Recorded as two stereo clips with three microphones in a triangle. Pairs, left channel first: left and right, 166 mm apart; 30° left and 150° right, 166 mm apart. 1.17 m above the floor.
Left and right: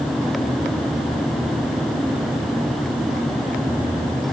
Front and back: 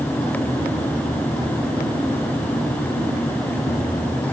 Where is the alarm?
I don't hear an alarm.